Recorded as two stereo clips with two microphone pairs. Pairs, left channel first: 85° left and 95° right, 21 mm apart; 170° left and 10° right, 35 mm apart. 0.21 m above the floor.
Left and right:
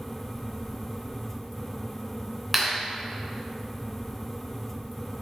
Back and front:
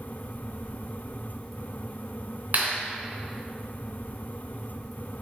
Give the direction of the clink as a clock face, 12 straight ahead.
I don't hear a clink.